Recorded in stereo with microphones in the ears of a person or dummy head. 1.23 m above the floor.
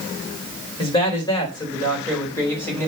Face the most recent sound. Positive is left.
turn(degrees=10)  # may be behind; listen again after turning